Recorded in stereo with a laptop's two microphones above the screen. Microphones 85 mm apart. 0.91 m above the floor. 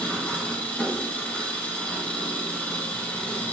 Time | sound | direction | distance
0.0 | an engine running | 20° left (ahead or behind) | 2.5 m